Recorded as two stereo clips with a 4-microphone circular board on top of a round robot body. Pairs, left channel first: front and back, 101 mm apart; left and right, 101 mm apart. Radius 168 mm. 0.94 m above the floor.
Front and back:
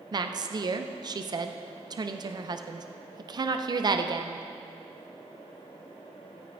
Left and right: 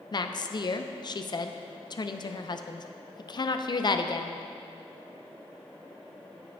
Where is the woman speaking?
135° left, 0.6 m.